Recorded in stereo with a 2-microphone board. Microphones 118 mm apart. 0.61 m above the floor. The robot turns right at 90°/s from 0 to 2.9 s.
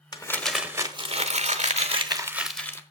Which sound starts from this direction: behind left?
Crumpling, at 0.1 s.